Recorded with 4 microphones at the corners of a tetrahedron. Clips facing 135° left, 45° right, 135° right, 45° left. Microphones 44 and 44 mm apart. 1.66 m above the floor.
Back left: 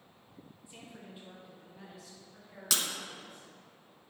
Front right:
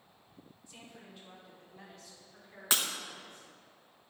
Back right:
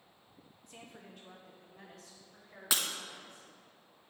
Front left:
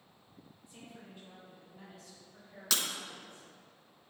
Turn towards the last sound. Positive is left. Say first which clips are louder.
# front right 2 dB, back right 1 dB
turn(degrees=-80)